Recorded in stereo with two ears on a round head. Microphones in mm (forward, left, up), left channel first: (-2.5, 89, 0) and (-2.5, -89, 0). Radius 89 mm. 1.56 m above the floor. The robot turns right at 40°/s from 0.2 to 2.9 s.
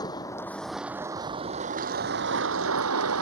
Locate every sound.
0.0 s a vehicle: 160° left; by 3.2 s 95° right